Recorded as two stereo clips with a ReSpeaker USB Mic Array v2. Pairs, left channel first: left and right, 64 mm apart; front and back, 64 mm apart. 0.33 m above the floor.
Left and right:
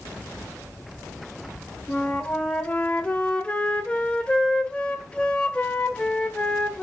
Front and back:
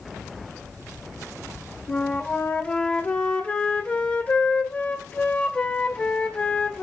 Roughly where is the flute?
Ahead left.